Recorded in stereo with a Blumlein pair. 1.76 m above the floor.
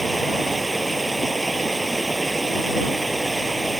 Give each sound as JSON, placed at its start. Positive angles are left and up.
{"t": 0.0, "sound": "running water", "azimuth_deg": -5}